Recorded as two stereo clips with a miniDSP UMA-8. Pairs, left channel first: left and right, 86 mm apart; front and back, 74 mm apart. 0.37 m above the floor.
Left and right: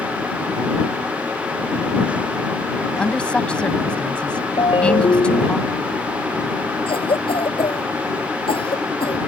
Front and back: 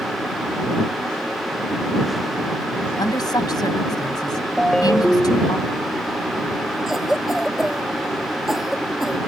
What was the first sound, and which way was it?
A woman speaking, 15° left.